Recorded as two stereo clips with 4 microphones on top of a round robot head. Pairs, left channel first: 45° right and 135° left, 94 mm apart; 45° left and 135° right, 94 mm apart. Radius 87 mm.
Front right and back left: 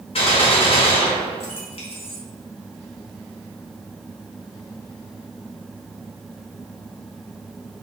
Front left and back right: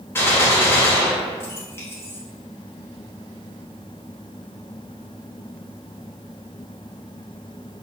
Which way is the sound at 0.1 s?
20° right.